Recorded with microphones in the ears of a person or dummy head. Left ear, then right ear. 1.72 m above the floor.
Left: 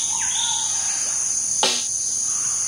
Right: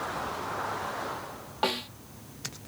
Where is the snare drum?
35° left (ahead or behind).